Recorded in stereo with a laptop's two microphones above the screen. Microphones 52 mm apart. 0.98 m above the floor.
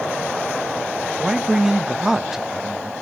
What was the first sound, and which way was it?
A man speaking, 10° right (ahead or behind).